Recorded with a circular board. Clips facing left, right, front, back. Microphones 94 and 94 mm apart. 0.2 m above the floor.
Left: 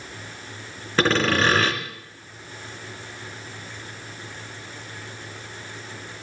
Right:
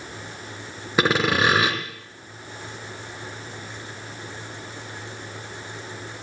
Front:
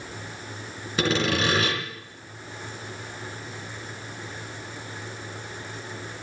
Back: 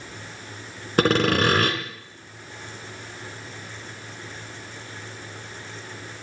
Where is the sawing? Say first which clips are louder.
Even, back 5 dB; 165° right, 2.5 m.